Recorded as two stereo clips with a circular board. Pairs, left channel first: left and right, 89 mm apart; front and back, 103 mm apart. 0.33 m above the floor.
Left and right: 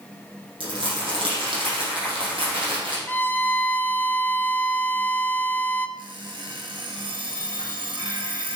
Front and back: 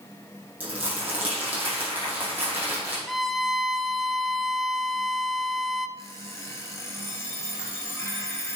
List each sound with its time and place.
0.6 s crumpling: 105° right, 5 m
3.1 s a violin: 90° left, 0.6 m
6.0 s an alarm clock: 65° right, 2.5 m